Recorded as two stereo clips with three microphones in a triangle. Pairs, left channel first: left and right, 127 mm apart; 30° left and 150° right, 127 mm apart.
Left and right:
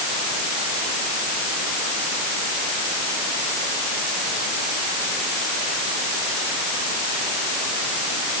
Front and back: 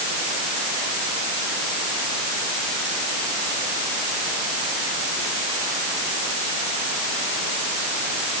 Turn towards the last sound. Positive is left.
No sound to turn to.